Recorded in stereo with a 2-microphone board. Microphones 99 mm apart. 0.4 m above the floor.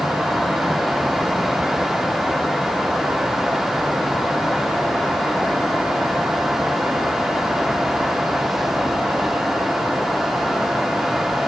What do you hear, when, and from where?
Only background noise.